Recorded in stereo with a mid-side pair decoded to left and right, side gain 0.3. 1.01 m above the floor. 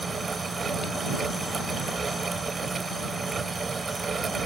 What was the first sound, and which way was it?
A fan, 55° right.